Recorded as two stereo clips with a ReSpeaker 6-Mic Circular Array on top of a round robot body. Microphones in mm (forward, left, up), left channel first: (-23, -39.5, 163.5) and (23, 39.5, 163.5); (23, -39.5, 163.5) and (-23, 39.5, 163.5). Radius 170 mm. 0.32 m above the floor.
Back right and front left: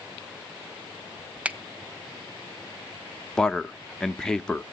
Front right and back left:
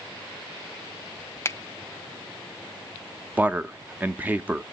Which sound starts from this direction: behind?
A man speaking, at 3.4 s.